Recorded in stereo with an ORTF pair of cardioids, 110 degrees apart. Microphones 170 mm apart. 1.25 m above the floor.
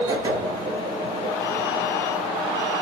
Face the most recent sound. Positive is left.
turn(degrees=-25)